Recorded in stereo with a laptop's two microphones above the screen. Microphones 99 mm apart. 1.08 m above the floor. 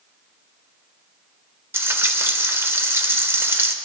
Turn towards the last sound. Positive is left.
turn(degrees=-25)  # may be behind; listen again after turning